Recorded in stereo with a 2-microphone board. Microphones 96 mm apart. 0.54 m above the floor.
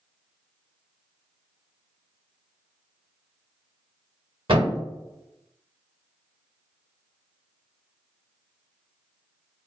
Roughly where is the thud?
Right.